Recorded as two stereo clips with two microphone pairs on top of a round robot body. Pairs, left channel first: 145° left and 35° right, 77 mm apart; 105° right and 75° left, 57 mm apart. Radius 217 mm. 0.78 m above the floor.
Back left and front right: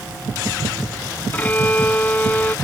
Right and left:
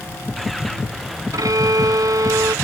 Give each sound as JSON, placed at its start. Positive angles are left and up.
{"t": 1.3, "sound": "a violin", "azimuth_deg": 80}